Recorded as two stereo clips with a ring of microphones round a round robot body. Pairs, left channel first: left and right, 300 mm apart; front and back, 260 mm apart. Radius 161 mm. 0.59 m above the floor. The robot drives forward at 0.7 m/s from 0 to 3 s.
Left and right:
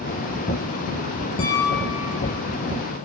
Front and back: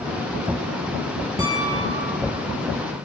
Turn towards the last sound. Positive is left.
turn(degrees=120)